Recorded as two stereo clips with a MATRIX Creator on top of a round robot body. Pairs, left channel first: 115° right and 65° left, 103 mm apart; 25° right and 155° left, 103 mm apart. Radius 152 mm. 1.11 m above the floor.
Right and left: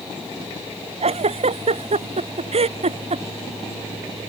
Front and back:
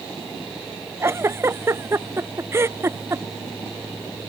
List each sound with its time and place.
1.0 s a giggle: 90° left